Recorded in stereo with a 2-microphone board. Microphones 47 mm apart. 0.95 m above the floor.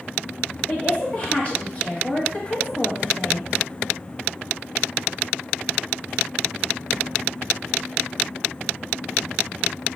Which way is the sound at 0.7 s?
30° left (ahead or behind).